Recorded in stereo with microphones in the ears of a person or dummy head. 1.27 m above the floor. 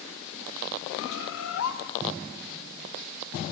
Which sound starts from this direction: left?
A bird, at 1.0 s.